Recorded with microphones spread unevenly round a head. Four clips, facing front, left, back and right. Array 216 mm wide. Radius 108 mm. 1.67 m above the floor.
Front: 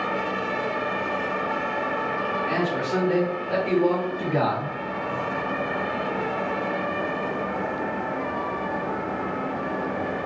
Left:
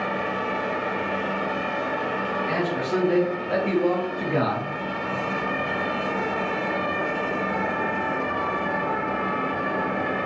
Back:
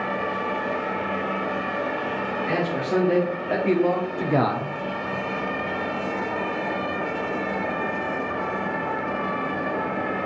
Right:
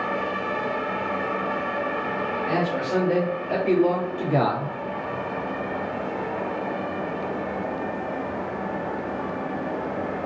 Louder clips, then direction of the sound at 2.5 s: Right 2 dB, back 3 dB; straight behind.